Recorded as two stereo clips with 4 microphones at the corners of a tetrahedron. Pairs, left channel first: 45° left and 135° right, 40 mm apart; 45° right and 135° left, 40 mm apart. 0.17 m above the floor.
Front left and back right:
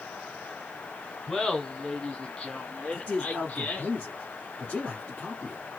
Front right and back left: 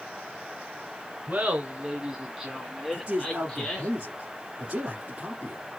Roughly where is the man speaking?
Left.